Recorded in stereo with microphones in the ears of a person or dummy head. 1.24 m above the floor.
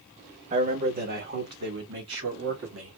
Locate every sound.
0.5 s a man speaking: 40° right (ahead or behind), 1.4 m; by 3.0 s 75° right (ahead or behind), 2 m